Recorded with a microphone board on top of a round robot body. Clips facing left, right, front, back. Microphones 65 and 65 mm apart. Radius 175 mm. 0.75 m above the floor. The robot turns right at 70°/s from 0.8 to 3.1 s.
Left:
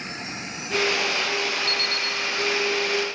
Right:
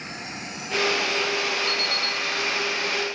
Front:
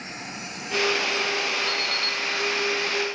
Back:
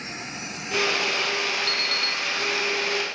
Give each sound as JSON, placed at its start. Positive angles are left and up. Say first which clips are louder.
{"t": 1.7, "sound": "an alarm clock", "louder": "even, even", "azimuth_deg": -150, "distance_m": 0.8}